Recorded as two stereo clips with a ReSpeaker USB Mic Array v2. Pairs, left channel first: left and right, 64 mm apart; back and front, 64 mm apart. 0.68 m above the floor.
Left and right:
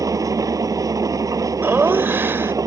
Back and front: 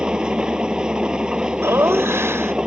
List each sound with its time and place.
0.0 s an engine running: 75° right
1.6 s laughter: 40° right